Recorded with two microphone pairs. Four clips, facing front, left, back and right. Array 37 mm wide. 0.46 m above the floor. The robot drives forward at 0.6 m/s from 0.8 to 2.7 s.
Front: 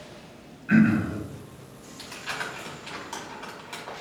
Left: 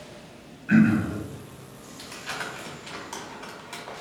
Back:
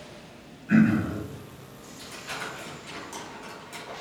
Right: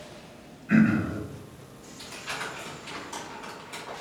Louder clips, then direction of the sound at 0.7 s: Left 2 dB, front 1 dB; 40° left.